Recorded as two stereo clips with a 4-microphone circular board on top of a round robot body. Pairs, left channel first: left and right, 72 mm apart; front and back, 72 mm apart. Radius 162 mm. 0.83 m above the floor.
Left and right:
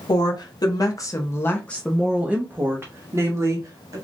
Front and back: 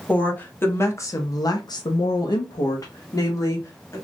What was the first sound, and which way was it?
A woman speaking, 70° left.